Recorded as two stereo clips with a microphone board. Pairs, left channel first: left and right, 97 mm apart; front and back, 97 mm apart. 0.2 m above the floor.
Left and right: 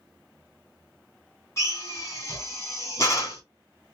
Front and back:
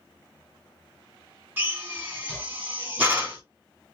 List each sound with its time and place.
1.6 s a drill: 120° left, 1.9 m